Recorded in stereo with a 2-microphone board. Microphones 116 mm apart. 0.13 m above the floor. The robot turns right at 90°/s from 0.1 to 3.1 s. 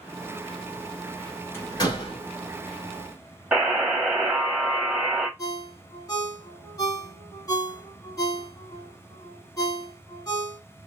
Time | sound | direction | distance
1.5 | a door slam | 25° left (ahead or behind) | 1.6 m
3.5 | a buzzer | 10° right (ahead or behind) | 0.7 m
5.4 | a ringtone | 35° left (ahead or behind) | 0.9 m